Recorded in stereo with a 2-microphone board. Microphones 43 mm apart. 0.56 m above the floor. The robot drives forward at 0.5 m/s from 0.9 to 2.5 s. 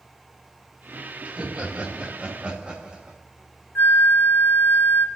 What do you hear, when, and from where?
1.2 s laughter: 30° right (ahead or behind), 2 m; by 3.2 s 25° right (ahead or behind), 2.5 m
3.8 s a flute: 75° left (ahead or behind), 1.0 m